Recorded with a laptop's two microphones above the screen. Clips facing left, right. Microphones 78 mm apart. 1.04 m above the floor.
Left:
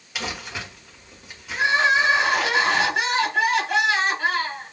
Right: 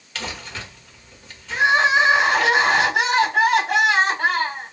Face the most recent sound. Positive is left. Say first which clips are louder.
# right 3 dB
turn(degrees=-75)  # may be behind; listen again after turning